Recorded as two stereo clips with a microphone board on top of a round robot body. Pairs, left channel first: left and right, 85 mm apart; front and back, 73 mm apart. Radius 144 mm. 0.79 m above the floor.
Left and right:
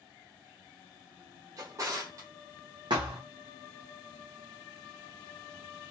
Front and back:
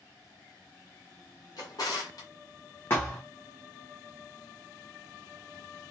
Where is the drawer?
35° right, 0.8 m.